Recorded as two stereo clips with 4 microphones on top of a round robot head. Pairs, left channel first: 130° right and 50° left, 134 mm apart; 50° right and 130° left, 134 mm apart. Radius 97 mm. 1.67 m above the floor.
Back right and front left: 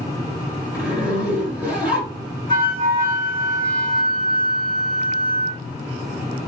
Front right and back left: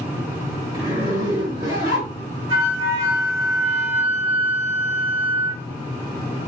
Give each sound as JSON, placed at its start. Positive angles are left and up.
{"t": 0.7, "sound": "a zipper", "azimuth_deg": 125, "distance_m": 2.0}
{"t": 2.5, "sound": "a flute", "azimuth_deg": 95, "distance_m": 1.9}